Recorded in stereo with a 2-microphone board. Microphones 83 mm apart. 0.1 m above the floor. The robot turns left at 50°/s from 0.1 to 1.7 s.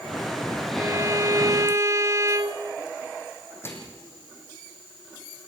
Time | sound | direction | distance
0.8 | a violin | 55° right | 0.8 m
3.6 | a microwave | 30° left (ahead or behind) | 3.5 m